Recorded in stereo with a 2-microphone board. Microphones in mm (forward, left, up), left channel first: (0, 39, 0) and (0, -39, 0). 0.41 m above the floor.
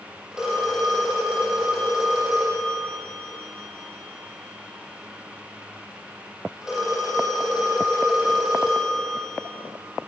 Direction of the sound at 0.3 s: 10° right (ahead or behind).